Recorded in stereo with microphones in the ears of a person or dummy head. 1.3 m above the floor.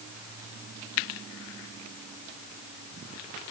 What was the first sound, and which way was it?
Only background noise.